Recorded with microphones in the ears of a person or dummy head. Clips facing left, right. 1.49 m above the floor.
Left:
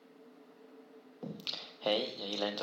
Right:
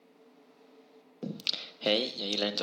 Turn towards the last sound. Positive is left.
turn(degrees=-35)  # may be behind; listen again after turning